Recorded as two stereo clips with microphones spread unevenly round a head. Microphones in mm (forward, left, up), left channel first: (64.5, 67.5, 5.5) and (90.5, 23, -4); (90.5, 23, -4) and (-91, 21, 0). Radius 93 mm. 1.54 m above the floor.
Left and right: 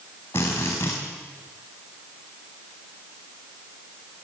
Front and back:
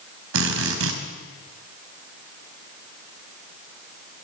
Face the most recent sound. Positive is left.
turn(degrees=180)